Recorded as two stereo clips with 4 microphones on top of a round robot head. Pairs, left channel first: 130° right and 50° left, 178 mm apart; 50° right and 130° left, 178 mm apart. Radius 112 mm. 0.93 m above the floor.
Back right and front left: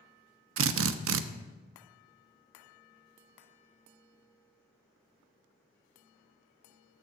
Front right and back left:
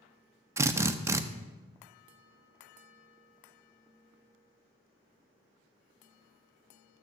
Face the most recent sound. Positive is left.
turn(degrees=55)